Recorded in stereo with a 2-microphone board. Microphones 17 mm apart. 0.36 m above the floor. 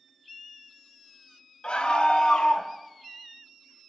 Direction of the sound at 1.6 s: 60° left (ahead or behind).